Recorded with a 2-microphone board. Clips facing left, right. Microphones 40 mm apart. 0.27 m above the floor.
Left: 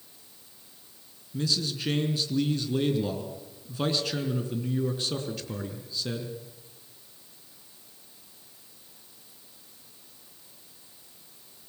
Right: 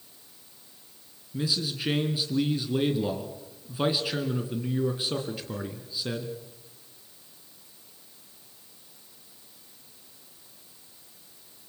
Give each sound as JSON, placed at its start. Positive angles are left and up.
{"t": 1.3, "sound": "a man speaking", "side_deg": -10, "distance_m": 3.0}